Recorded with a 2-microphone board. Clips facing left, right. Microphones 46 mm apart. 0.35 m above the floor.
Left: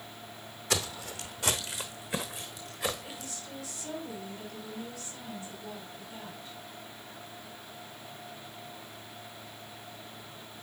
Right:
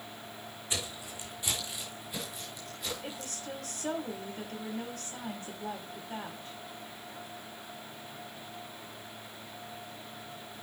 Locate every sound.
0.7 s footsteps: 70° left (ahead or behind), 1.0 m; by 3.3 s 80° left, 2.5 m
3.0 s a woman speaking: 50° right (ahead or behind), 1.9 m